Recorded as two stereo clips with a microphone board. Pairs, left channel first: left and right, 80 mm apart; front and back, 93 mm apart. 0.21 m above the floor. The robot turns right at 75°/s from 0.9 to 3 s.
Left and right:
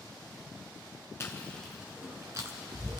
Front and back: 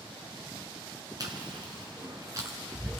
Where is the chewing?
140° left, 1.7 m; by 3.0 s 85° right, 1.7 m.